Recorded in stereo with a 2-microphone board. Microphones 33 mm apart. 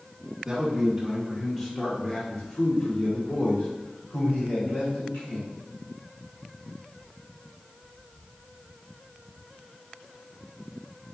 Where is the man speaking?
25° right (ahead or behind), 1.2 m; by 5.5 s 70° left (ahead or behind), 2.5 m.